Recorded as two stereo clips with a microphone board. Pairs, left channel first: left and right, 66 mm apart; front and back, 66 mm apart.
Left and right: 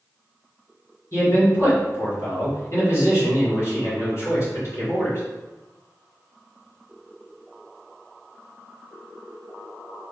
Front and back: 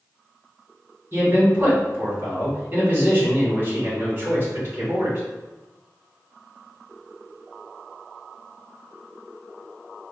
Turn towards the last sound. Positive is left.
turn(degrees=125)